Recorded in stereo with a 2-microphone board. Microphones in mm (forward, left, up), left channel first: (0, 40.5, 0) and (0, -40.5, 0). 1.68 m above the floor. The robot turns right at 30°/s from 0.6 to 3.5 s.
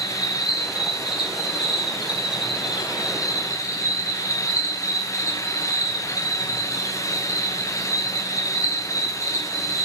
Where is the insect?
50° left, 6.5 m; by 9.8 s 140° left, 6.5 m.